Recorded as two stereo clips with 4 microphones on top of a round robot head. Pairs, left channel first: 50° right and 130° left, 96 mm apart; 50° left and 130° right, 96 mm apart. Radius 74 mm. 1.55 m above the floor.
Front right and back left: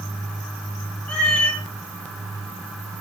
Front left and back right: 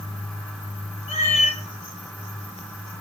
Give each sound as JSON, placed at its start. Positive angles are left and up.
{"t": 1.1, "sound": "a cat meowing", "azimuth_deg": 30, "distance_m": 1.7}